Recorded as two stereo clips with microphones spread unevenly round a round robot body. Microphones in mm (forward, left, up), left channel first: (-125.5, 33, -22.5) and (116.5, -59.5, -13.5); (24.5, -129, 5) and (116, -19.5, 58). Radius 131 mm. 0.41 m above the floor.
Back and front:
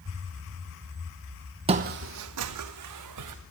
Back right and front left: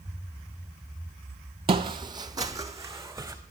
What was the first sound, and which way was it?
Footsteps, 40° left.